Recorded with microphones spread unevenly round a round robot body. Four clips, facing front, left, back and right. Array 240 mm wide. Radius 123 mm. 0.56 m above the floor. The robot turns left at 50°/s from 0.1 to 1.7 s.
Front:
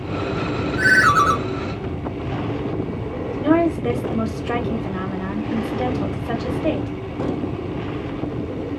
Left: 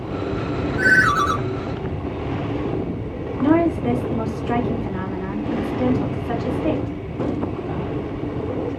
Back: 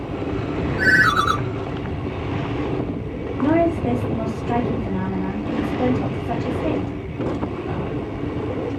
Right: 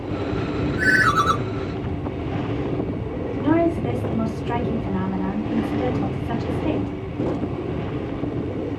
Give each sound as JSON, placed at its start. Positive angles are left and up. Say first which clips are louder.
{"t": 0.8, "sound": "a ringtone", "louder": "left 2 dB, front 2 dB", "azimuth_deg": -40, "distance_m": 1.2}
{"t": 3.4, "sound": "a woman speaking", "louder": "left 2 dB, even", "azimuth_deg": 5, "distance_m": 2.0}